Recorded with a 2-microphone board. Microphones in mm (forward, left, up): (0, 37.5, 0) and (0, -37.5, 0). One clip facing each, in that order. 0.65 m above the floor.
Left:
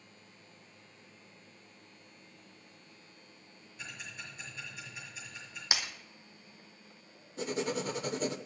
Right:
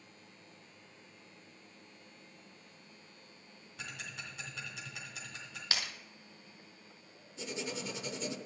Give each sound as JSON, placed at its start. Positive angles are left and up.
{"t": 3.8, "sound": "ticking", "side_deg": -80, "distance_m": 2.5}
{"t": 5.7, "sound": "breaking glass", "side_deg": 15, "distance_m": 1.4}
{"t": 7.4, "sound": "writing", "side_deg": 50, "distance_m": 0.7}